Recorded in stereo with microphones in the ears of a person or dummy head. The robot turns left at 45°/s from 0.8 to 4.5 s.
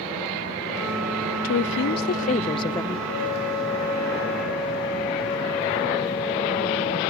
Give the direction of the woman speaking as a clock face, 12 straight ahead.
9 o'clock.